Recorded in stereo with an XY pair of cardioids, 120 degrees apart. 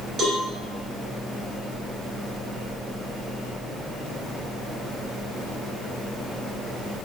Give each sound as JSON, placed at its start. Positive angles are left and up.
{"t": 0.2, "sound": "a cowbell", "azimuth_deg": -40, "distance_m": 3.5}